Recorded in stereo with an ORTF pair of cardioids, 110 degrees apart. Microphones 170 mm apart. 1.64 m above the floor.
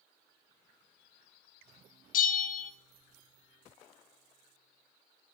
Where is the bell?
55° left, 0.6 m.